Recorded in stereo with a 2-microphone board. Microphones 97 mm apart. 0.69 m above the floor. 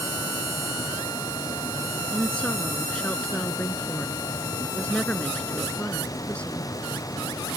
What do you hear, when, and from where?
2.1 s a woman speaking: 10° left (ahead or behind)